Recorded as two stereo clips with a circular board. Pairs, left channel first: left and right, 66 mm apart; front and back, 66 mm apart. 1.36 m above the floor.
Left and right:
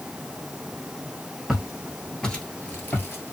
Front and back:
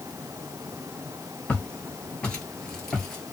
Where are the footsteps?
20° right, 1.4 m; by 3.3 s 80° left, 1.6 m.